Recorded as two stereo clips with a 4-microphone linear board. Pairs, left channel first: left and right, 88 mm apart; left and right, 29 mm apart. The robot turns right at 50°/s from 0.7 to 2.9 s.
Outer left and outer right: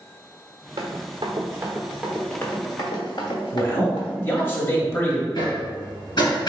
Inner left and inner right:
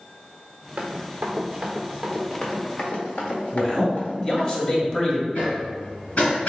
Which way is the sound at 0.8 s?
80° right.